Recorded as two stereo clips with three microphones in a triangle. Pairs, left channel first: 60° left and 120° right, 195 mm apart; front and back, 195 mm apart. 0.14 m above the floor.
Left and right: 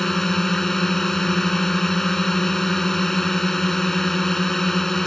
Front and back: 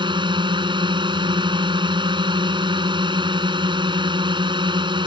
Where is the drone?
145° left.